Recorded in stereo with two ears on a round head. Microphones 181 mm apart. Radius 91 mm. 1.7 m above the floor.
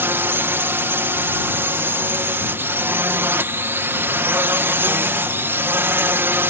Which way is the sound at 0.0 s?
10° right (ahead or behind).